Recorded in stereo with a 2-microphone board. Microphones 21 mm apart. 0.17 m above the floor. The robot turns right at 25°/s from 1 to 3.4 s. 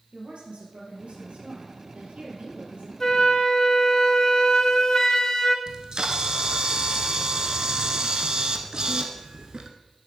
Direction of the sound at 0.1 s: 105° right.